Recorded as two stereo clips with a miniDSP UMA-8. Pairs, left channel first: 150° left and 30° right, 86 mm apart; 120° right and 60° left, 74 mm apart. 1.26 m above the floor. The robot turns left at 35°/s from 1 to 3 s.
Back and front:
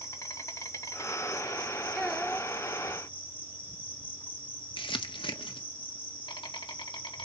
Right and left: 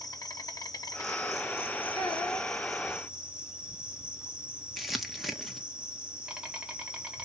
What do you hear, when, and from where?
0.0 s an insect: 155° right, 2.5 m; by 7.3 s 135° left, 2.5 m
1.9 s a child speaking: 110° right, 2.5 m; by 2.5 s 130° right, 2.5 m
4.8 s crumpling: 150° left, 1.4 m